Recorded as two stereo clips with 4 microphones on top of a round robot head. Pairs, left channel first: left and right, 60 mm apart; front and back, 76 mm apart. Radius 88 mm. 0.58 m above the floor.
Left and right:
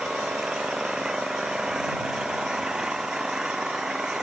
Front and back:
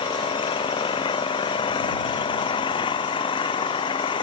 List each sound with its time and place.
0.0 s an engine running: 10° right